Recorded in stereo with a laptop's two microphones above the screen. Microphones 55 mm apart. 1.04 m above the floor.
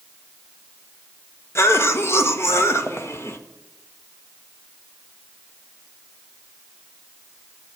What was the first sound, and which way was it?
A cough, 50° left (ahead or behind).